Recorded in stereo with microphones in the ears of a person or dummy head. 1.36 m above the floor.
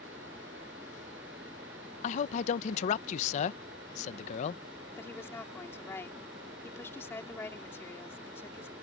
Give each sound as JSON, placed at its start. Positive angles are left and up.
{"t": 2.0, "sound": "a man speaking", "side_deg": 40}
{"t": 5.0, "sound": "a woman speaking", "side_deg": 15}